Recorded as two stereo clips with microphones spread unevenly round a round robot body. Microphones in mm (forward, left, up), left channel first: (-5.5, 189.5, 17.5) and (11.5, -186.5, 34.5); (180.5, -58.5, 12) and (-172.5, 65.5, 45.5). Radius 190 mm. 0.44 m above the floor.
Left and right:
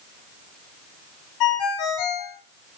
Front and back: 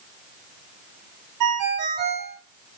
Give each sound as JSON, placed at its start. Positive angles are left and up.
{"t": 1.4, "sound": "a ringtone", "azimuth_deg": 120, "distance_m": 2.5}